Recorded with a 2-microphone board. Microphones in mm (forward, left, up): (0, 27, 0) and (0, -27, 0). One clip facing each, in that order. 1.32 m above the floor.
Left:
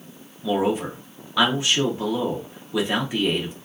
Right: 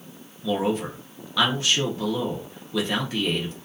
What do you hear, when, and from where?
0.4 s a man speaking: 15° left (ahead or behind), 0.6 m